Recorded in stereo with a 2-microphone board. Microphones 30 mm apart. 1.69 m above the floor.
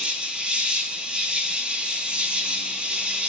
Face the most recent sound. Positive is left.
turn(degrees=-30)  # may be behind; listen again after turning